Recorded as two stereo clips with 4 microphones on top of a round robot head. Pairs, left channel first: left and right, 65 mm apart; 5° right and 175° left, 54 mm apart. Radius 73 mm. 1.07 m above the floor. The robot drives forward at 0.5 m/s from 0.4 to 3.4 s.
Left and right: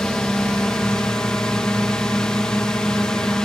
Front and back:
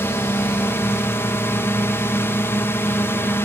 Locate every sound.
0.0 s a drone: 15° left